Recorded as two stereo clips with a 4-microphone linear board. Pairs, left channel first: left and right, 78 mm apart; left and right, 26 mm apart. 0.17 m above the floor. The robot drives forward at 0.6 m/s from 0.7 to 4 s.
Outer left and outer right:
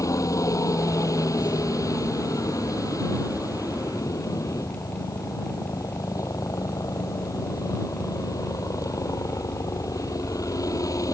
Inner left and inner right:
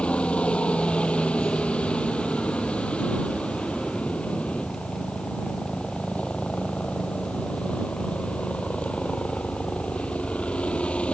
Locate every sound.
0.0 s a helicopter: 40° left (ahead or behind); by 11.1 s 45° left (ahead or behind)